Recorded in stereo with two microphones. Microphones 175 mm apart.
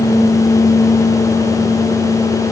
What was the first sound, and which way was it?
Only background noise.